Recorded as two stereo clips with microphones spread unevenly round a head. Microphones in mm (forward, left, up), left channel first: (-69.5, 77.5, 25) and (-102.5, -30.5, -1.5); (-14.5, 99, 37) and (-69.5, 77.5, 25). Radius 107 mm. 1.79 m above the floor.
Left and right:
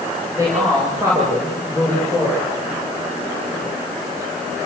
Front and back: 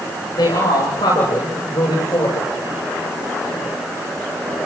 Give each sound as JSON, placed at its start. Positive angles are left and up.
{"t": 0.4, "sound": "a man speaking", "azimuth_deg": -25, "distance_m": 7.5}